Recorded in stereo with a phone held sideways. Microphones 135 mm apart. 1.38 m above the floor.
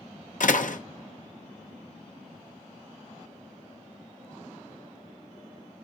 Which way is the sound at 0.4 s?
70° left (ahead or behind).